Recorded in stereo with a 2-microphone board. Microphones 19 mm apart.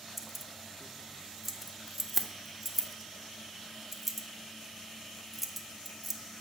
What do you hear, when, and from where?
0.2 s keys jangling: centre (ahead or behind), 0.5 m